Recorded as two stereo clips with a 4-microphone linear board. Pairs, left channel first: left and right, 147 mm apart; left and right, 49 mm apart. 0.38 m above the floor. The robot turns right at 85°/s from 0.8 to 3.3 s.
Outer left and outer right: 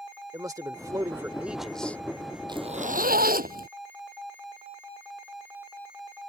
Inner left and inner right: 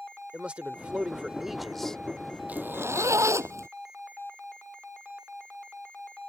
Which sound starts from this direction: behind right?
A zipper, at 2.5 s.